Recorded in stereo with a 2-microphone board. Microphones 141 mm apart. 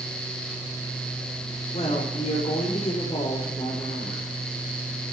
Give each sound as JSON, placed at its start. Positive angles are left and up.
{"t": 1.7, "sound": "a woman speaking", "side_deg": 45, "distance_m": 5.5}